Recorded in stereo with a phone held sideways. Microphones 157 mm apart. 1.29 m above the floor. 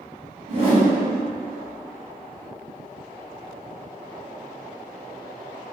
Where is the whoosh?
40° right (ahead or behind), 2.0 m.